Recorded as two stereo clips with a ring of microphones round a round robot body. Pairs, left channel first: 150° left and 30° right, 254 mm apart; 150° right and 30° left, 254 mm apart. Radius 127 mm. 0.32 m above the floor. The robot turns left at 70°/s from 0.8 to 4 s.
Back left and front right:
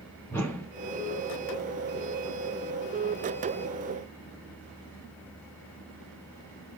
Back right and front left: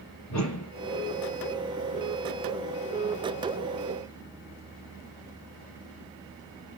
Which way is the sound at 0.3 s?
130° right.